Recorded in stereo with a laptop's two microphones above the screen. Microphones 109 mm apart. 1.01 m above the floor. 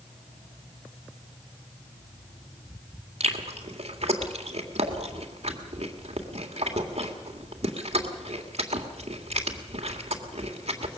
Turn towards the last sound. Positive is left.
turn(degrees=-75)  # may be behind; listen again after turning